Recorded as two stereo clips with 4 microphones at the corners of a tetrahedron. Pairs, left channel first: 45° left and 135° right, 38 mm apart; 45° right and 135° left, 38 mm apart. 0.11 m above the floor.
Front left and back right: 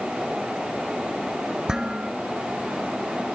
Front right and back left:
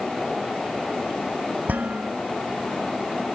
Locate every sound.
1.7 s dishes clattering: 155° left, 1.2 m